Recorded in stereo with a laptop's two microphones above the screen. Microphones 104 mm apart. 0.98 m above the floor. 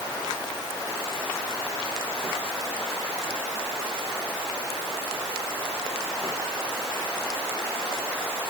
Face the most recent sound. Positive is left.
No sound to turn to.